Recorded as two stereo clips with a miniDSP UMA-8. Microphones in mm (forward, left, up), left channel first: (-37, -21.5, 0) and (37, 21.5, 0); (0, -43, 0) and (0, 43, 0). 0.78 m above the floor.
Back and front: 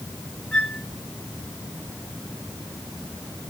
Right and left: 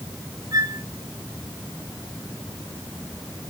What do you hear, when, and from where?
0.5 s a flute: 130° left, 4 m